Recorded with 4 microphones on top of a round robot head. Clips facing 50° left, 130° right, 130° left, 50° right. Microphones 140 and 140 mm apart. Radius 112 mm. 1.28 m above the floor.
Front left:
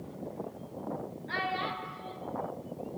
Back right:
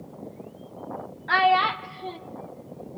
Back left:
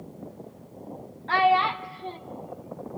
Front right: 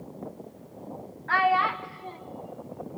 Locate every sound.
1.3 s a child speaking: 165° right, 0.7 m